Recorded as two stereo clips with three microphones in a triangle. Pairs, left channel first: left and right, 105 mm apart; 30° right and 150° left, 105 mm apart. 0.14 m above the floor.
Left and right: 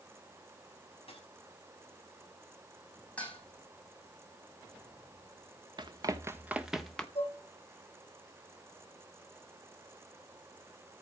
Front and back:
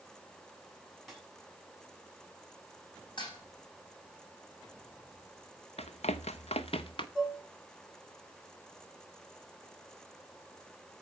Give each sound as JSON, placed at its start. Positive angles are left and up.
{"t": 1.1, "sound": "a dropped coin", "azimuth_deg": 60, "distance_m": 6.5}
{"t": 3.2, "sound": "dishes clattering", "azimuth_deg": 15, "distance_m": 4.5}
{"t": 5.8, "sound": "running footsteps", "azimuth_deg": -45, "distance_m": 1.1}
{"t": 7.2, "sound": "dishes clattering", "azimuth_deg": 60, "distance_m": 5.5}